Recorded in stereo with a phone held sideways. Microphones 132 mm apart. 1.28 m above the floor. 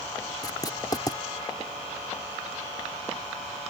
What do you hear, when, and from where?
0.4 s writing: 30° left (ahead or behind)